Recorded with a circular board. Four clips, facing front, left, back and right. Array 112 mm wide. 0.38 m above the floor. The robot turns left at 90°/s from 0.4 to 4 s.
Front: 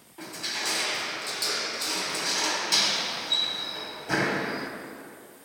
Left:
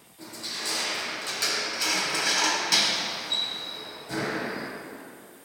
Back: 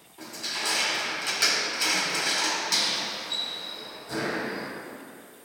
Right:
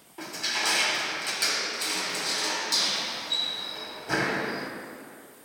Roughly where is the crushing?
Right.